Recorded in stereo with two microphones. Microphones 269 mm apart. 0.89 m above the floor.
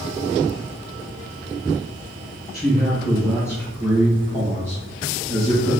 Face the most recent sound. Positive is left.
turn(degrees=-40)  # may be behind; listen again after turning